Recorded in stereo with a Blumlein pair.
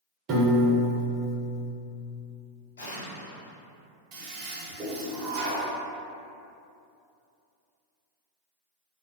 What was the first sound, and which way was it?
A piano, 25° right.